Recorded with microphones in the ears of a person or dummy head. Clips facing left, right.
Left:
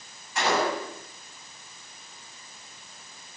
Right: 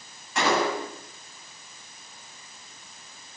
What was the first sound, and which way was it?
A gunshot, 60° right (ahead or behind).